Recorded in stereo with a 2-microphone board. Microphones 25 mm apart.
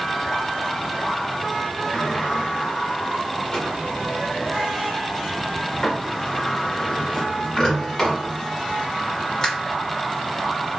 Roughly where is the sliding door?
Centre.